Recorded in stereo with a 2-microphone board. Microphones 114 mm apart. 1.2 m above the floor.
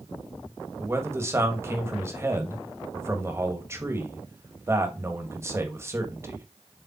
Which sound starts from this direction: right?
A man speaking, at 0.8 s.